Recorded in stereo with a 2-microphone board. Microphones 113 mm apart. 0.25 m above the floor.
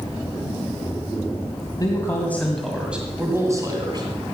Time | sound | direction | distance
1.8 | a man speaking | 30° left (ahead or behind) | 1.9 m